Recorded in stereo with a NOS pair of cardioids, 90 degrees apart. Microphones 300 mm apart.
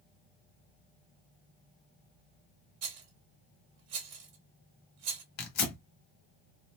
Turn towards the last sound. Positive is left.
turn(degrees=65)